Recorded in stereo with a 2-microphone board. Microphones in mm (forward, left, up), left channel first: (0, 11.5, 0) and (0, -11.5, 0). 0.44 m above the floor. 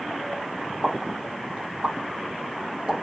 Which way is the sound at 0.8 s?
55° right (ahead or behind).